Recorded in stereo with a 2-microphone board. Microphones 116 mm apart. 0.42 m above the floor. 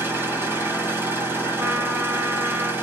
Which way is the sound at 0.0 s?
20° right (ahead or behind).